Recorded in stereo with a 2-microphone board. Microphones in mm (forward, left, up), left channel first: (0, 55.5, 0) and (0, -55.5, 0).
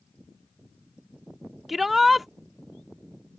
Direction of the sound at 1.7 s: Centre (ahead or behind).